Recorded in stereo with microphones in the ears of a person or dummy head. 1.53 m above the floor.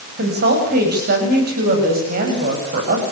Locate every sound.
0.2 s a woman speaking: 60° right (ahead or behind), 8.5 m; by 3.0 s 50° right (ahead or behind), 9.5 m